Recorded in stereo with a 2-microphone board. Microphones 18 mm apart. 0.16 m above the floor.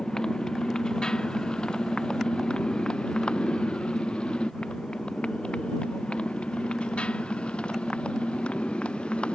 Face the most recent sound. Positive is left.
turn(degrees=75)  # may be behind; listen again after turning